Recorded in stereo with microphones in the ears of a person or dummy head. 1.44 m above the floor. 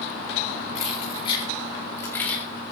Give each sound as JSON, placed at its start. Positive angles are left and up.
{"t": 0.8, "sound": "keys jangling", "side_deg": 40, "distance_m": 4.0}